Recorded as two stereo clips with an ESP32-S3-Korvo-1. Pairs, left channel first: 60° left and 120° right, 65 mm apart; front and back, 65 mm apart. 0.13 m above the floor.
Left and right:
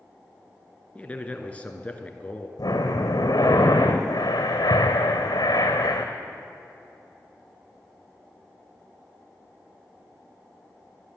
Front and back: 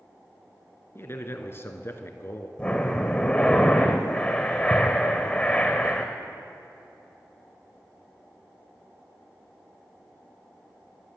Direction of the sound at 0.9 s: 5° left.